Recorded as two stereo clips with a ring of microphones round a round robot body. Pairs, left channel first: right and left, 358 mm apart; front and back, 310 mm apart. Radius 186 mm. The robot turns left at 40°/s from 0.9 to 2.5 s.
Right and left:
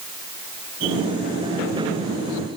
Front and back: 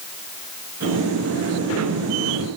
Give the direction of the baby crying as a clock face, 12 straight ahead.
I don't hear a baby crying.